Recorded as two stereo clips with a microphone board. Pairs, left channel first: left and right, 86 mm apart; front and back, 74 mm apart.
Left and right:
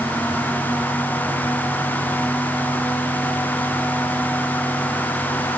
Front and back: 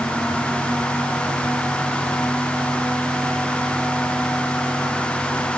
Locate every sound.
Only background noise.